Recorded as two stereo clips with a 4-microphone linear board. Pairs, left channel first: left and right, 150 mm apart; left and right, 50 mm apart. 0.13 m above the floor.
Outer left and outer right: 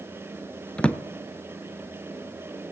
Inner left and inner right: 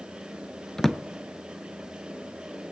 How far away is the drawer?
About 0.6 m.